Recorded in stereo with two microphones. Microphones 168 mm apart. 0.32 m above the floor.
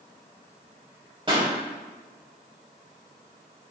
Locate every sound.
1.3 s a pop: 30° right (ahead or behind), 2 m